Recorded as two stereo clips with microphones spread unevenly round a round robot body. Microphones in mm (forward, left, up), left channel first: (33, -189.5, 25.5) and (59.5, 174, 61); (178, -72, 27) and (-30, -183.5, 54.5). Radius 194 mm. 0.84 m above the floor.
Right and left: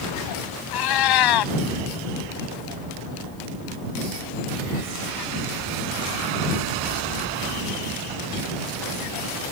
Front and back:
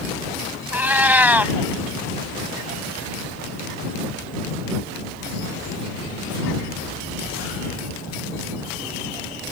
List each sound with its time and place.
0.7 s a cat meowing: 70° right